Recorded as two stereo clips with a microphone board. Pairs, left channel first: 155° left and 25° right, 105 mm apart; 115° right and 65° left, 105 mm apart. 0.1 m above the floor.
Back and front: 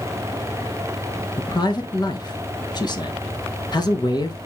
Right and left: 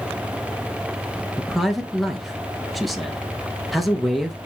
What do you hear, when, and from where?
1.4 s a man speaking: 155° left, 1.4 m